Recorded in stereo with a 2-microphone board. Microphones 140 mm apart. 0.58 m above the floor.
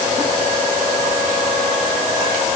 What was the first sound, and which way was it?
Only background noise.